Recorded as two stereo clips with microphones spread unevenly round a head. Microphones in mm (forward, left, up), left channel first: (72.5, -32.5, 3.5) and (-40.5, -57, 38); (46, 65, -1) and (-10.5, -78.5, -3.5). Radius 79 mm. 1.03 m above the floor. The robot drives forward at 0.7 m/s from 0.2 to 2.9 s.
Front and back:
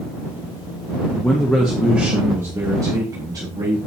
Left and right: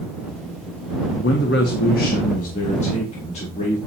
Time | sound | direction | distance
1.1 | a man speaking | 80° left | 1.7 m